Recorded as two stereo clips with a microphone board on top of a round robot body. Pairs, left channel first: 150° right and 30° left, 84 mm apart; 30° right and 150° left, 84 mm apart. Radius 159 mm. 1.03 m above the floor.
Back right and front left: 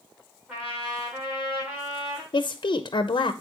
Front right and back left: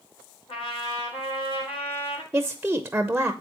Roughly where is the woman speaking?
Behind right.